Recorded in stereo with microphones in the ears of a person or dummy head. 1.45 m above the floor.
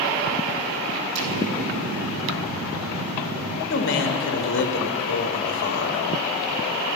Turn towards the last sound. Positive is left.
turn(degrees=55)  # may be behind; listen again after turning